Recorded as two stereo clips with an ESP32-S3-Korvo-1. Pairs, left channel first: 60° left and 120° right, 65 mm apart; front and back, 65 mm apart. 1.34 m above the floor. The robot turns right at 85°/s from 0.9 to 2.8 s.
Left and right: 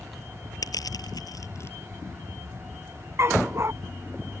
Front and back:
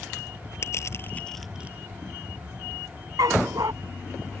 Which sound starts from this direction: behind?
A dog barking, at 3.2 s.